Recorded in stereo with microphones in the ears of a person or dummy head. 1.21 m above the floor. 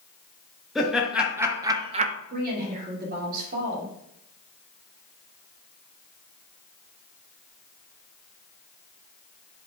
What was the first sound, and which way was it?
Laughter, centre (ahead or behind).